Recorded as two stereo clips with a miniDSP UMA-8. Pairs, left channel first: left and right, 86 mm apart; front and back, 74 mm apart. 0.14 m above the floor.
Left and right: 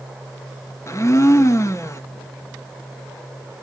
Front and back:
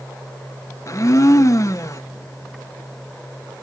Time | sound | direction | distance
0.9 | a blender | 40° left | 0.6 m